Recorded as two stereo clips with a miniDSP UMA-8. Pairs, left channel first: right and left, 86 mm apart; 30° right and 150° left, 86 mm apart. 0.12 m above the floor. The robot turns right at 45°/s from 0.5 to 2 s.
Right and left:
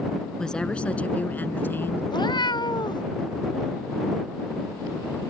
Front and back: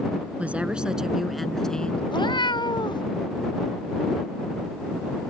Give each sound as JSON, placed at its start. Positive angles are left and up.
{"t": 0.4, "sound": "a woman speaking", "azimuth_deg": -160}
{"t": 2.1, "sound": "a cat meowing", "azimuth_deg": -60}